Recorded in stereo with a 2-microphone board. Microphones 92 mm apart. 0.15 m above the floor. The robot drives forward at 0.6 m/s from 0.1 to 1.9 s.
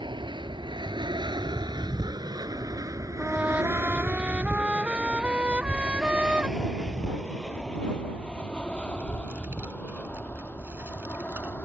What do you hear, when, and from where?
0.0 s an aircraft: 60° right (ahead or behind); by 11.6 s 20° left (ahead or behind)
3.2 s a trumpet: 15° right (ahead or behind)
5.5 s a child speaking: 25° right (ahead or behind)